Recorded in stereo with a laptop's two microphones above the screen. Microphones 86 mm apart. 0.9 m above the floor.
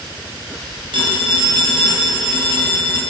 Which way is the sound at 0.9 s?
75° right (ahead or behind).